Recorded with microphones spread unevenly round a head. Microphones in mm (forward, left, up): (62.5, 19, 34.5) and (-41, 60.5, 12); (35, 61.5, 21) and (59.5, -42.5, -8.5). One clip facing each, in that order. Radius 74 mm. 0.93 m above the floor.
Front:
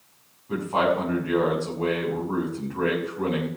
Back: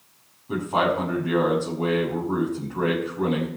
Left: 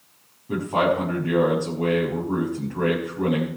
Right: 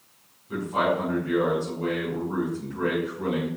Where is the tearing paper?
No tearing paper in this recording.